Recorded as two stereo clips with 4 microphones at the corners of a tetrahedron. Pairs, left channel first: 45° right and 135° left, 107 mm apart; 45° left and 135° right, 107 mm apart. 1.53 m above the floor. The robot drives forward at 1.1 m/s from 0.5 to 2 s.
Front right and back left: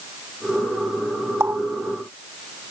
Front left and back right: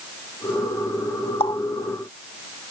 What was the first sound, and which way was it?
A running tap, 70° left.